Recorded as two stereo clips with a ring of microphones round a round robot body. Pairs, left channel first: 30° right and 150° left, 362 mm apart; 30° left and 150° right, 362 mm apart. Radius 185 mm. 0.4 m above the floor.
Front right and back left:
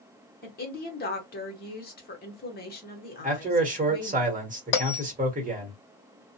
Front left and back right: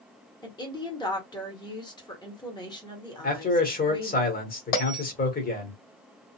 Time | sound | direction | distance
0.4 | a woman speaking | 35° right | 0.9 m
3.2 | a man speaking | 90° left | 1.1 m
4.7 | a bell | 25° left | 1.6 m